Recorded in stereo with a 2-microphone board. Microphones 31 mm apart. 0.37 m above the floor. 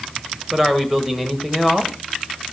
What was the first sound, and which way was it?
A man speaking, 15° right (ahead or behind).